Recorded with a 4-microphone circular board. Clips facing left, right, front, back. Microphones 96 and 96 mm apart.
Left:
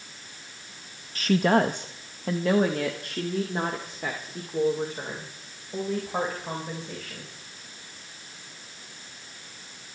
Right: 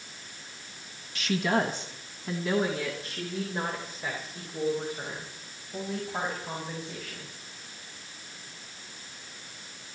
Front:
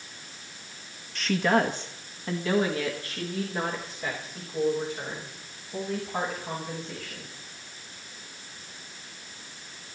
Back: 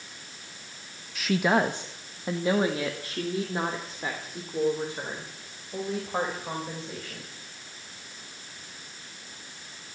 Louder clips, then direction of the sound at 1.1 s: Left 5 dB, even; 95° left.